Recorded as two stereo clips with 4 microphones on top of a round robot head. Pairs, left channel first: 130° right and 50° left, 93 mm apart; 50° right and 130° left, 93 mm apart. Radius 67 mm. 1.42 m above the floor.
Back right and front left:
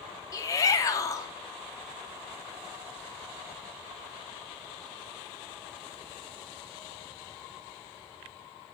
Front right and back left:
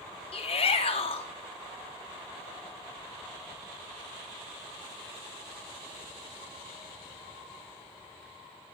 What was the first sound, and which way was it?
A shout, 75° right.